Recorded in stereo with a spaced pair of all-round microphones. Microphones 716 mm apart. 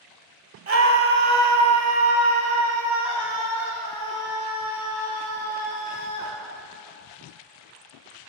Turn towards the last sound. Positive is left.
turn(degrees=-10)  # may be behind; listen again after turning